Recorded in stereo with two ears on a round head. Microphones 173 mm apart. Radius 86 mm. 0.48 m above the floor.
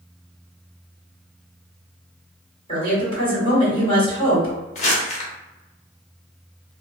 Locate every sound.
2.7 s a woman speaking: 30° left (ahead or behind), 1.8 m
4.8 s crumpling: 40° left (ahead or behind), 0.7 m